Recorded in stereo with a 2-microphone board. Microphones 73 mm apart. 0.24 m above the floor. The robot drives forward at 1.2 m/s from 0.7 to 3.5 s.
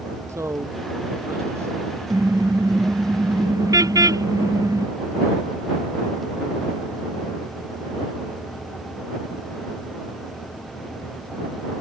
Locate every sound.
0.3 s a man speaking: 45° right (ahead or behind); by 1.9 s 40° right (ahead or behind)
2.1 s a car horn: 60° right (ahead or behind); by 4.8 s 55° right (ahead or behind)